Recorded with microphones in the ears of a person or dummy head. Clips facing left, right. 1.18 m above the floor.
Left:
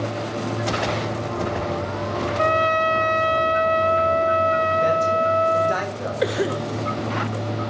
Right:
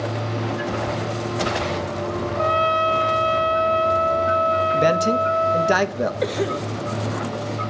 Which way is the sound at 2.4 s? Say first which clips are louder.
Left 1 dB; 30° left (ahead or behind).